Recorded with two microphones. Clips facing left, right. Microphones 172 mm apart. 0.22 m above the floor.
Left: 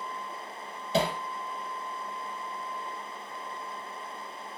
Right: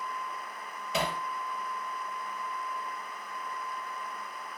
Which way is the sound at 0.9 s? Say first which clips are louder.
Left 5 dB; 30° left (ahead or behind).